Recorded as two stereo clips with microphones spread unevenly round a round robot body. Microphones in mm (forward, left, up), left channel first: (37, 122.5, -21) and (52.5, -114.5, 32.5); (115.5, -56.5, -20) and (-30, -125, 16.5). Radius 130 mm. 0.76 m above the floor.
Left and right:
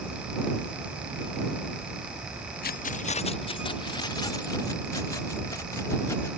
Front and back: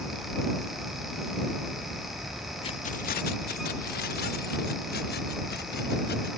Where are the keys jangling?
70° left; by 6.3 s 15° left.